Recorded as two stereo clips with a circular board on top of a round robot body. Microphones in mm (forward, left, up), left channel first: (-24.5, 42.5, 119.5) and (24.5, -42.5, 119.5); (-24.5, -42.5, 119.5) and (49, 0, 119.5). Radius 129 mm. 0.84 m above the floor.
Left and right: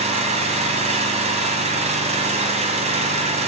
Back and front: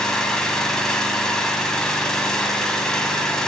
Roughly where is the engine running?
Ahead right.